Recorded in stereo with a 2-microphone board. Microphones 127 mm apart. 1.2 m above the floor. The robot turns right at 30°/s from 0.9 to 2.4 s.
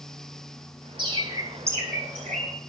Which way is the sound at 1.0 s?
40° right (ahead or behind).